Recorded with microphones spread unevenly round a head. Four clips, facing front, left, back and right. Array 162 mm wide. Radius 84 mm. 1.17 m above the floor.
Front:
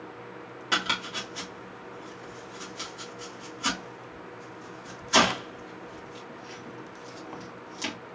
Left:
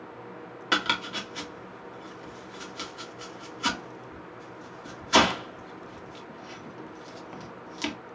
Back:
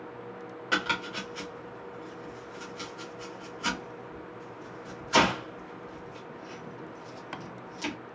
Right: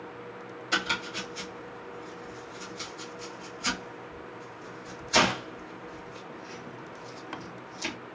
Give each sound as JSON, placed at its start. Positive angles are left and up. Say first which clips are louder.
{"t": 0.7, "sound": "chopping", "louder": "left 3 dB, even", "azimuth_deg": 65, "distance_m": 1.7}